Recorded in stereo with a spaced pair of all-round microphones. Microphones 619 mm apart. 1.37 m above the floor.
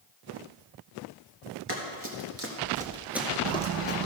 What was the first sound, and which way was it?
Running footsteps, 40° right (ahead or behind).